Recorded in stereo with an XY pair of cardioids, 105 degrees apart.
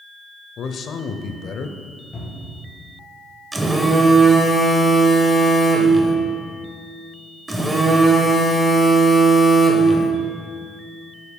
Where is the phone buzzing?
15° right, 1.2 m.